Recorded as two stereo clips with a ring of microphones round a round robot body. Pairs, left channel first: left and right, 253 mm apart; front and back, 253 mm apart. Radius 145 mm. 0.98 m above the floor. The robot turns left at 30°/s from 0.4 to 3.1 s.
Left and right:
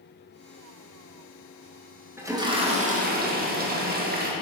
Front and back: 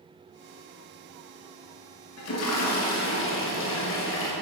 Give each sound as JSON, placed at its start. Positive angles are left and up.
{"t": 2.2, "sound": "a toilet flushing", "azimuth_deg": -10, "distance_m": 1.9}